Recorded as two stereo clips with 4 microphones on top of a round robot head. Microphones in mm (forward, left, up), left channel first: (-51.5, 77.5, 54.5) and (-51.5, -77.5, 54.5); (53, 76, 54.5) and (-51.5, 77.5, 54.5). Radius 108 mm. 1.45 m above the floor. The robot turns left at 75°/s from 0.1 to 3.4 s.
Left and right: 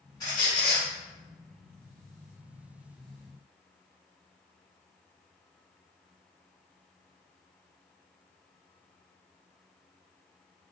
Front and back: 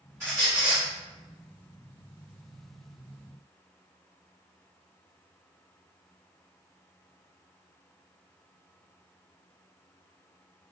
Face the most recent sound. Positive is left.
turn(degrees=-100)